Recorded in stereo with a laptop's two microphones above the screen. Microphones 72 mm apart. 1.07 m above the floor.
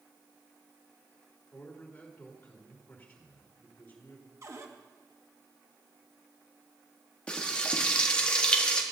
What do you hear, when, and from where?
1.5 s a man speaking: 20° left (ahead or behind), 3.5 m
4.4 s a cupboard door: 40° right (ahead or behind), 1.1 m
7.3 s frying: 15° left (ahead or behind), 1.4 m